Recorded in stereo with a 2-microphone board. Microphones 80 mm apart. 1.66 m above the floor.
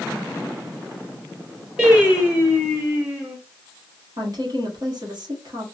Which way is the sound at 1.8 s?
15° right (ahead or behind).